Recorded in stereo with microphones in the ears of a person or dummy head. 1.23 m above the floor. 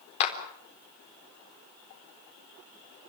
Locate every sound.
0.2 s a clap: 40° left (ahead or behind), 4 m